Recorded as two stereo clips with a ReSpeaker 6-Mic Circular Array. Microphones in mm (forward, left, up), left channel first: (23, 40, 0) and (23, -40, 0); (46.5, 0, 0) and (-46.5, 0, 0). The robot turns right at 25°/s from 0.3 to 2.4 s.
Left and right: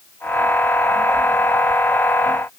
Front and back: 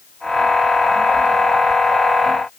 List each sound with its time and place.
Only background noise.